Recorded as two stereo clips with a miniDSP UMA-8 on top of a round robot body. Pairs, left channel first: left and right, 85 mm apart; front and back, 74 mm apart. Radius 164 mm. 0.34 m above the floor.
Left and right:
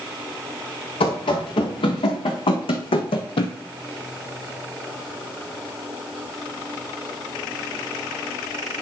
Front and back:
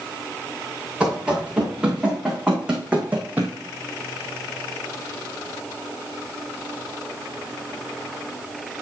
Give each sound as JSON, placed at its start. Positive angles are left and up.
{"t": 1.0, "sound": "running footsteps", "azimuth_deg": 100, "distance_m": 3.5}